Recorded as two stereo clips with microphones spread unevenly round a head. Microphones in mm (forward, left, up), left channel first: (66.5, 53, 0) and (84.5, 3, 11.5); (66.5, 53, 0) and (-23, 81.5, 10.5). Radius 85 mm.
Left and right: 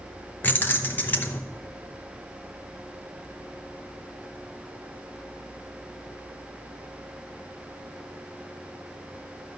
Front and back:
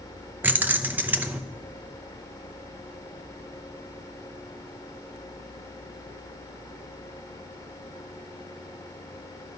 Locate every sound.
0.4 s keys jangling: 140° left, 0.7 m